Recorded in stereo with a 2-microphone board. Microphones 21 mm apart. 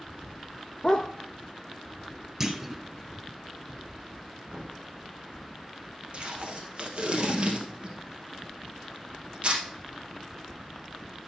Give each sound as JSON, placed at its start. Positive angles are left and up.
{"t": 0.8, "sound": "a dog barking", "side_deg": 35, "distance_m": 0.5}
{"t": 2.4, "sound": "a clunk", "side_deg": -20, "distance_m": 0.9}
{"t": 4.5, "sound": "a thud", "side_deg": -40, "distance_m": 3.5}
{"t": 6.1, "sound": "tape being pulled", "side_deg": -55, "distance_m": 2.0}